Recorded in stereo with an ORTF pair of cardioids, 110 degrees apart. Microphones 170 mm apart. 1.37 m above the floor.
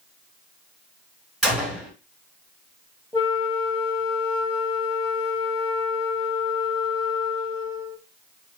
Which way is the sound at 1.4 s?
5° right.